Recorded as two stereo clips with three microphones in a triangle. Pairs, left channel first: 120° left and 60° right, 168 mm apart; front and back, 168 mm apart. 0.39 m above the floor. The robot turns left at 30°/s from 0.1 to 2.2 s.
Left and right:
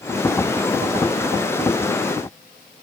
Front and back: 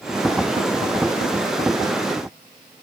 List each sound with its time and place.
Only background noise.